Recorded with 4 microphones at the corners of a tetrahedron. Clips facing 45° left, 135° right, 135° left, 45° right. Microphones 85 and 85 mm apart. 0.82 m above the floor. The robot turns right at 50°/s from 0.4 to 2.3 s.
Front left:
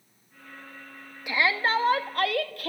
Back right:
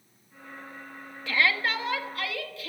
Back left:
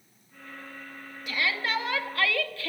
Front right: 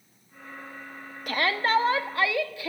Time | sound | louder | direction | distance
1.3 | a shout | front left 2 dB, front right 5 dB | 25° right | 1.4 m